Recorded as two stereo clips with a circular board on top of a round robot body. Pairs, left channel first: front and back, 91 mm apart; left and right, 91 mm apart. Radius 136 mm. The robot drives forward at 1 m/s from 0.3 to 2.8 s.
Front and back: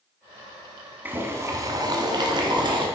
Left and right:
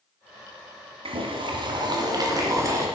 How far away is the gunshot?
No gunshot in this recording.